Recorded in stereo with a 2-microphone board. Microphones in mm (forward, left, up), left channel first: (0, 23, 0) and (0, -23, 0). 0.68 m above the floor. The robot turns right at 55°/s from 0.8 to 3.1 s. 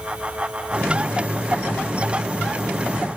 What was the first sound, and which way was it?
Only background noise.